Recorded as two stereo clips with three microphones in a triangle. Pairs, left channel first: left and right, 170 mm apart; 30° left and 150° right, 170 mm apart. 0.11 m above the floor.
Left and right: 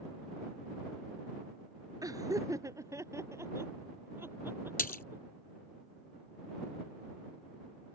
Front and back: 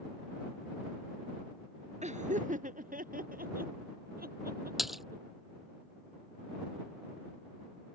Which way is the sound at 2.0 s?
150° right.